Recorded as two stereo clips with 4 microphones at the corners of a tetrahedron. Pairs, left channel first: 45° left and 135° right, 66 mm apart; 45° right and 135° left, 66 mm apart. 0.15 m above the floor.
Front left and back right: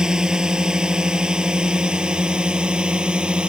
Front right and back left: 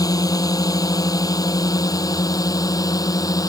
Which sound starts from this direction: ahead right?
A drone, at 0.0 s.